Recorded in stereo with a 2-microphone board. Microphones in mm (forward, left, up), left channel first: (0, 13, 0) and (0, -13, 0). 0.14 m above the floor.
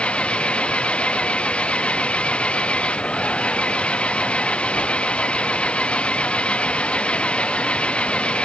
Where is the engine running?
55° left (ahead or behind).